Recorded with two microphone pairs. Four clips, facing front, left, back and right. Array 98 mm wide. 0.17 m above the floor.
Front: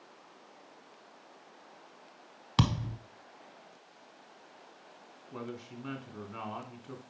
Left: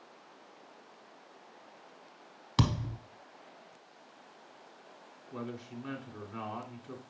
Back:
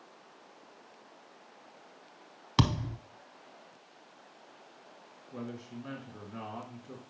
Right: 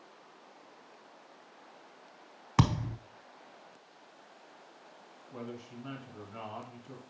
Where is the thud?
110° right, 0.5 m.